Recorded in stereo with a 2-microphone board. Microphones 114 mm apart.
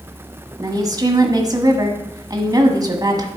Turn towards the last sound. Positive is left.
turn(degrees=-30)  # may be behind; listen again after turning